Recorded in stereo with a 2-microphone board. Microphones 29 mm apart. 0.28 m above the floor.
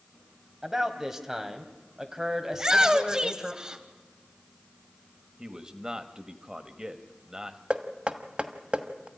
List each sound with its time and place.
0.6 s a man speaking: 15° right (ahead or behind), 2 m
2.5 s a shout: 25° right (ahead or behind), 1.4 m
5.4 s a man speaking: 25° right (ahead or behind), 1.3 m
7.7 s knocking: 40° right (ahead or behind), 1.3 m